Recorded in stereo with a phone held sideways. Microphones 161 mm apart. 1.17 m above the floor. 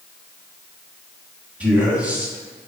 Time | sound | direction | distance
1.6 | a man speaking | 10° right (ahead or behind) | 3 m